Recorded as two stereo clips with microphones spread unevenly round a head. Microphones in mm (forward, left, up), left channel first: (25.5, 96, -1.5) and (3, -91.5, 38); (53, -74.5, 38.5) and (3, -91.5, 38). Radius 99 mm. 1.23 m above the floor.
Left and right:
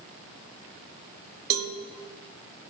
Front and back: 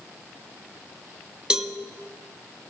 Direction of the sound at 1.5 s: 85° right.